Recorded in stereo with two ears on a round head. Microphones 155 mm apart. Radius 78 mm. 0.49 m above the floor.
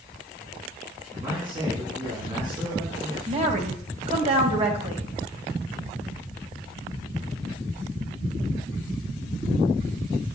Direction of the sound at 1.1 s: 25° right (ahead or behind).